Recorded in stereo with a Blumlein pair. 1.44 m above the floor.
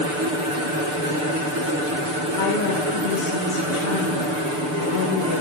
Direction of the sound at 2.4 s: 60° left.